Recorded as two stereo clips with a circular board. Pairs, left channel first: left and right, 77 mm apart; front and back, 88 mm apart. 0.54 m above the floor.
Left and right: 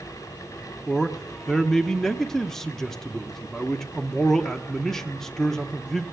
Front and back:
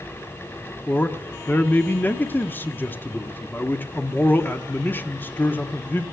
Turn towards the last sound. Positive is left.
turn(degrees=15)